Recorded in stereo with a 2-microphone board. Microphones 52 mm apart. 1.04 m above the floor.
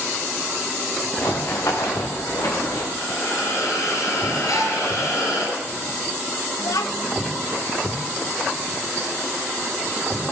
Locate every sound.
1.2 s running footsteps: 65° left (ahead or behind), 5 m; by 2.9 s 75° left (ahead or behind), 5.5 m
3.0 s a hiss: 65° left (ahead or behind), 9 m
4.5 s a gasp: 75° left (ahead or behind), 7 m
6.6 s a child speaking: 85° left, 1.1 m